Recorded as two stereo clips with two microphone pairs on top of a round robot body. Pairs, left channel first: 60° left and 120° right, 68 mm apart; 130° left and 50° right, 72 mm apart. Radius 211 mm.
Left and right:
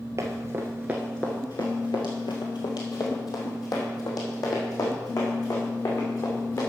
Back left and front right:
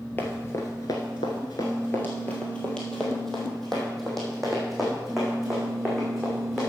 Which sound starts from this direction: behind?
Running footsteps, at 0.2 s.